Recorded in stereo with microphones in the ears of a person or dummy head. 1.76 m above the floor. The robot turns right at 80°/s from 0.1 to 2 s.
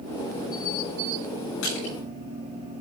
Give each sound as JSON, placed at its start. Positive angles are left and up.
{"t": 1.6, "sound": "crushing", "side_deg": 80, "distance_m": 7.5}